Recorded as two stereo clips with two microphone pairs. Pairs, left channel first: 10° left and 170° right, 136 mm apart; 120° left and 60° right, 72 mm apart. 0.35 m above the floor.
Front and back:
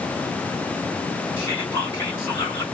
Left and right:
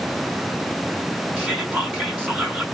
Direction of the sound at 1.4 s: 35° right.